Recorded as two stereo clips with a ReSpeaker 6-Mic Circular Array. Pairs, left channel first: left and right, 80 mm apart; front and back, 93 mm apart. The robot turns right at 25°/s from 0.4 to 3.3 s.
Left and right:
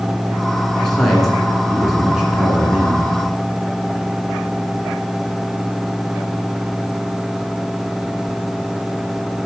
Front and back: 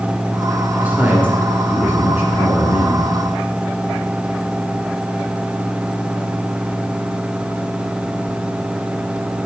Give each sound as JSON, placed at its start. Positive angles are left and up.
{"t": 0.8, "sound": "a man speaking", "azimuth_deg": 160, "distance_m": 1.6}